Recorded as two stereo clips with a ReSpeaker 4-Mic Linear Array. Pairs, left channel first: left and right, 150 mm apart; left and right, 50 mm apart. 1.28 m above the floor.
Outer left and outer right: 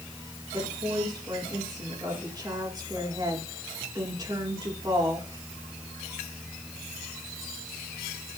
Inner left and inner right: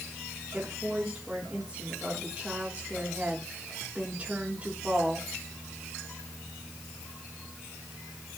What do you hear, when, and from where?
0.5 s a woman speaking: 25° right (ahead or behind), 3.5 m